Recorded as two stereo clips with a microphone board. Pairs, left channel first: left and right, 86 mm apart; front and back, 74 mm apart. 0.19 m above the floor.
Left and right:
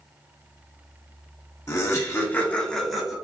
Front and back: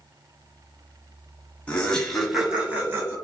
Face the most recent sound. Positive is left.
turn(degrees=-170)